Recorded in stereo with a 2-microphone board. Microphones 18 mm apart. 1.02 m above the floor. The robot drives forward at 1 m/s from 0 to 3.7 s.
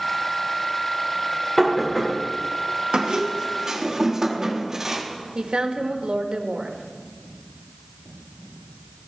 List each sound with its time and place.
1.6 s knocking: 10° left (ahead or behind), 2.5 m
2.9 s a squeak: 60° right (ahead or behind), 0.9 m; by 5.0 s 35° right (ahead or behind), 1.5 m
5.3 s a woman speaking: 75° right (ahead or behind), 1.1 m